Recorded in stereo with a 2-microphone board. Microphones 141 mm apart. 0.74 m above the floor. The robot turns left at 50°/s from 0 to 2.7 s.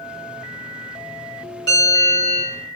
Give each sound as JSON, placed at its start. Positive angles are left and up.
{"t": 1.7, "sound": "a bell", "azimuth_deg": 145, "distance_m": 1.8}